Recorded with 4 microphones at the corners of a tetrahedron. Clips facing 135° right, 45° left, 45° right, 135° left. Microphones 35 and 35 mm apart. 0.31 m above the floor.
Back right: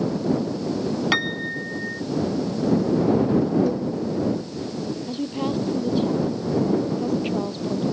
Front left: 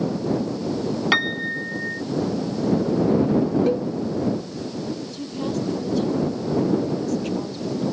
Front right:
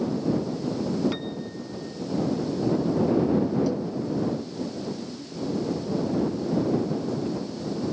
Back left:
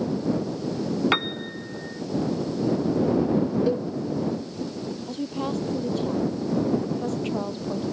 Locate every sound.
1.1 s a piano: 125° left
3.7 s a cowbell: 80° left
5.1 s a woman speaking: 160° left